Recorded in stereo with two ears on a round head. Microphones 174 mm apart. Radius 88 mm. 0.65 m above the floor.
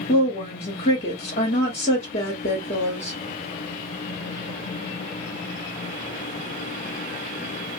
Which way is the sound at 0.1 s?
40° left (ahead or behind).